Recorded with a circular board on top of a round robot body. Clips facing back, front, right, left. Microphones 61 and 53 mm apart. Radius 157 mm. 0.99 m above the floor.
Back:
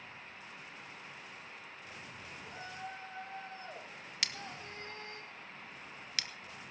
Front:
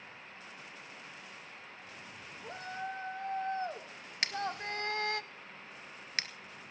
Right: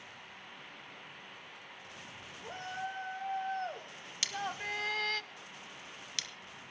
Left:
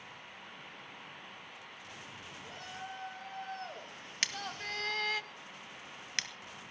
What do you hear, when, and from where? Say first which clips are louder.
2.4 s a shout: front 6 dB, right 6 dB; 35° right, 4.5 m; by 5.2 s 10° left, 0.9 m
4.2 s scissors: front 8 dB, right 1 dB; 50° left, 1.8 m